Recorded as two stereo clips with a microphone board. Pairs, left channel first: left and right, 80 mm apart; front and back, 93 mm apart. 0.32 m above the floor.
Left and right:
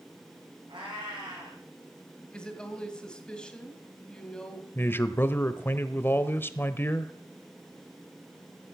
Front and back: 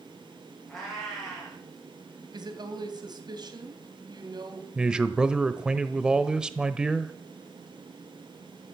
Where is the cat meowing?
90° right, 7.5 m.